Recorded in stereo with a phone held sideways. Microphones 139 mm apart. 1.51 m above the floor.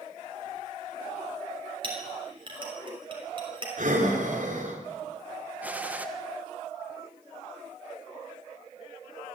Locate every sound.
1.8 s a clink: 35° right (ahead or behind), 6 m
3.8 s breathing: 65° right (ahead or behind), 5 m
5.6 s a gunshot: 10° right (ahead or behind), 1.5 m